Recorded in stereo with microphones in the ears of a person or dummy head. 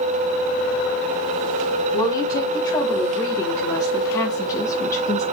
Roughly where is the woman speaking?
Left.